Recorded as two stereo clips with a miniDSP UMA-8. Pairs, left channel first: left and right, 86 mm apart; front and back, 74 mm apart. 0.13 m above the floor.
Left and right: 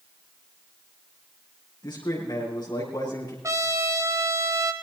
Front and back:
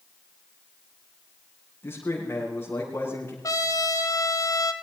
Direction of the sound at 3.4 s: 40° right.